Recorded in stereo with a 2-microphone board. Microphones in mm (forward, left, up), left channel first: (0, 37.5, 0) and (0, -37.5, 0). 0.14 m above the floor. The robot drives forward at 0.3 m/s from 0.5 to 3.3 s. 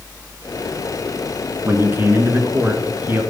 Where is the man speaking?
35° right (ahead or behind), 1.8 m; by 3.2 s 30° right (ahead or behind), 2 m.